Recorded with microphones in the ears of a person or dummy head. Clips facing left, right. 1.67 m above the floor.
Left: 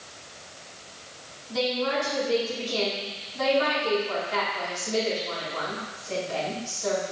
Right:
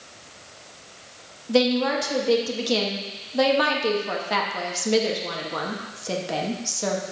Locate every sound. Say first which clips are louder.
1.5 s a woman speaking: right 6 dB; 80° right, 1.5 m